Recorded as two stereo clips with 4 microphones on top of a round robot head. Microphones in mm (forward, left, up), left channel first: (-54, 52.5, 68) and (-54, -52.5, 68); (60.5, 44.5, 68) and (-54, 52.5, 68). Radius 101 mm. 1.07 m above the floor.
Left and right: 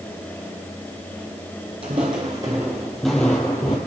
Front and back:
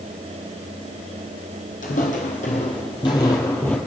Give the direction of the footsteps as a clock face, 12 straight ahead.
1 o'clock.